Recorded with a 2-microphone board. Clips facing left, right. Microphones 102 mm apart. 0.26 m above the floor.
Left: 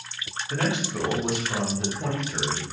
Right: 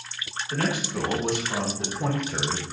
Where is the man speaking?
30° left (ahead or behind), 1.4 m; by 2.6 s 25° right (ahead or behind), 1.4 m.